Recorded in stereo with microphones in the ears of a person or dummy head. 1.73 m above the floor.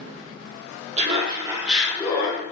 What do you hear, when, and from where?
1.0 s laughter: 40° right (ahead or behind), 0.9 m; by 2.4 s 35° left (ahead or behind), 0.8 m